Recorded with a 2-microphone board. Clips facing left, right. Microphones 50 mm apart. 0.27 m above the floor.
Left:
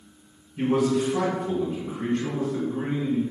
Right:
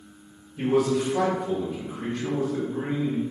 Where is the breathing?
I don't hear breathing.